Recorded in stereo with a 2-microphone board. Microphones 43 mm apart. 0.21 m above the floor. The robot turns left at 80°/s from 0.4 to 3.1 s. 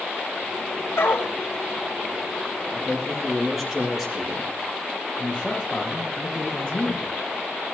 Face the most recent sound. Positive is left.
turn(degrees=25)  # may be behind; listen again after turning